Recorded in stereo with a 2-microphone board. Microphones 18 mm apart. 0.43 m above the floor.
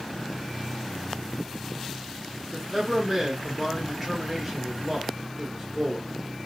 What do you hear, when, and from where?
2.5 s a man speaking: 5° right (ahead or behind), 1.4 m